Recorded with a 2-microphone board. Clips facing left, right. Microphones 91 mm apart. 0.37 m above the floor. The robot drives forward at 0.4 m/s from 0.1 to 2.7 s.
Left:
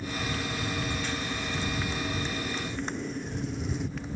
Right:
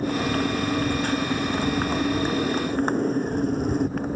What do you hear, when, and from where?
0.0 s a motorcycle: 55° right (ahead or behind); by 4.2 s 50° right (ahead or behind)